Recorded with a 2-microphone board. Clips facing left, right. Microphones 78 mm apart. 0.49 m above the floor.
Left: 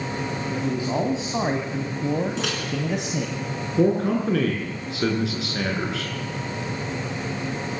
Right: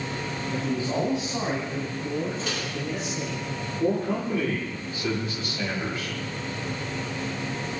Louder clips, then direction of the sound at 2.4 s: Left 4 dB; 80° left.